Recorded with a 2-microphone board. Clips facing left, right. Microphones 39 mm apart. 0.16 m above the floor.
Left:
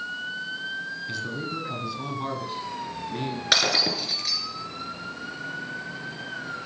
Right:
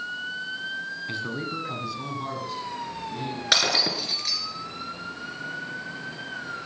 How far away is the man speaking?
About 1.8 m.